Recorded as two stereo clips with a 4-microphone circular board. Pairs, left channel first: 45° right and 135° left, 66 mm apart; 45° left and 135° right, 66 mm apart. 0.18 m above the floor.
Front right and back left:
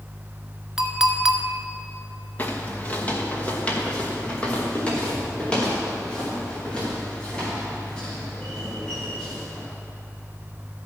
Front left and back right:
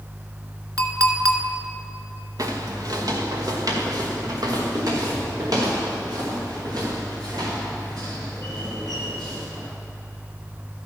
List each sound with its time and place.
0.8 s a clink: 145° right, 1.2 m
2.4 s footsteps: 105° right, 1.5 m; by 9.7 s 120° right, 7.5 m